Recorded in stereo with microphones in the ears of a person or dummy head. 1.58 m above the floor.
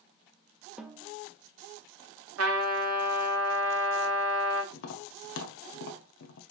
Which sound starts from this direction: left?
Tapping, at 4.7 s.